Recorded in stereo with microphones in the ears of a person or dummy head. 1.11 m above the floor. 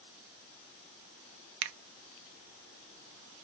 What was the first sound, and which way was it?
A finger snap, 75° right (ahead or behind).